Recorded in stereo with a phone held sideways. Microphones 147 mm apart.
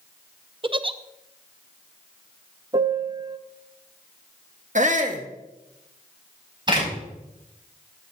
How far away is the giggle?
About 0.5 m.